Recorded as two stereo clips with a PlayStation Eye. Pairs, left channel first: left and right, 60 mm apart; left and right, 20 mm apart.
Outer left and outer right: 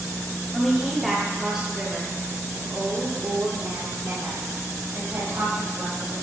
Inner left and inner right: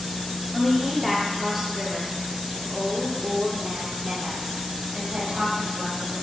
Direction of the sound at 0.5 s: 5° left (ahead or behind).